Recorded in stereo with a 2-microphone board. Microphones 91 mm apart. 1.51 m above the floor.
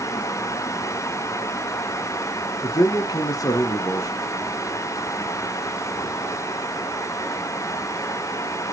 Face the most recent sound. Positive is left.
turn(degrees=45)  # may be behind; listen again after turning